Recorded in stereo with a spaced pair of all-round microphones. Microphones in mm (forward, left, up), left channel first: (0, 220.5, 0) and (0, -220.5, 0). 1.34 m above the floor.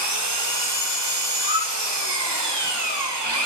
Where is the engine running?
65° right (ahead or behind), 1.3 m.